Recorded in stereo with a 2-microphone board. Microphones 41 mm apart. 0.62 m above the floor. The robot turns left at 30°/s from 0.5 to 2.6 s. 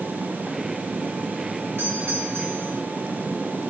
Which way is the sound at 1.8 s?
65° right (ahead or behind).